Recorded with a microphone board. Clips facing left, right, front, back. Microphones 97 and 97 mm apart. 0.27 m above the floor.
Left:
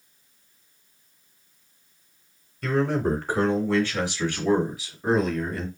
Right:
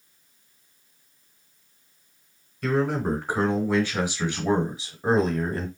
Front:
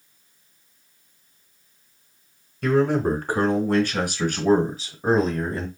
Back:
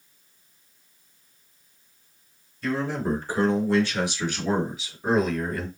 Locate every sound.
2.6 s a man speaking: 5° right, 2.5 m; by 5.7 s 55° right, 1.4 m